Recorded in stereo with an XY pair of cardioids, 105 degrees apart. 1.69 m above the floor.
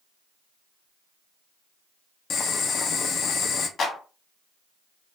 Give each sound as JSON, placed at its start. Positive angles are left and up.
{"t": 2.3, "sound": "boiling", "azimuth_deg": 55, "distance_m": 0.5}
{"t": 3.8, "sound": "a clap", "azimuth_deg": 55, "distance_m": 1.1}